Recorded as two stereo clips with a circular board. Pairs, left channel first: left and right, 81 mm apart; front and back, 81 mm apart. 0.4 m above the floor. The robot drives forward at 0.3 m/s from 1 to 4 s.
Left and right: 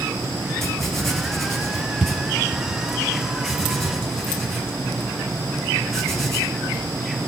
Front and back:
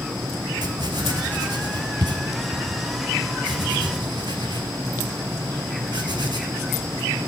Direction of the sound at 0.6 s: 175° left.